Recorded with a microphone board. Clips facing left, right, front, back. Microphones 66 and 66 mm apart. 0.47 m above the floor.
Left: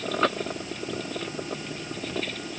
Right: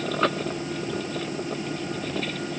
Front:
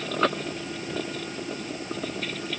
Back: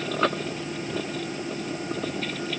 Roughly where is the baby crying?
I don't hear a baby crying.